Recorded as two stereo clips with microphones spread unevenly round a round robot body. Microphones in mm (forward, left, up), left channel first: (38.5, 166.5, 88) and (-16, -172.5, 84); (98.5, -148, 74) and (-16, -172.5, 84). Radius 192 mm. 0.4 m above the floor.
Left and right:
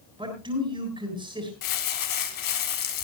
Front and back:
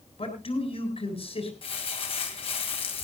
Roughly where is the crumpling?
Ahead left.